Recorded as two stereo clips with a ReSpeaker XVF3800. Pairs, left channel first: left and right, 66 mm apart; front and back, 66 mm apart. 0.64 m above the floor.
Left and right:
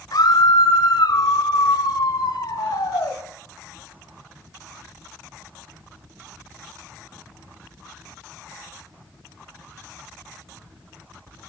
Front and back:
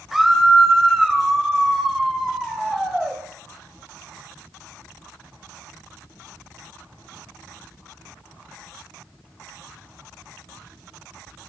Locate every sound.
0.1 s a scream: 95° left, 2.5 m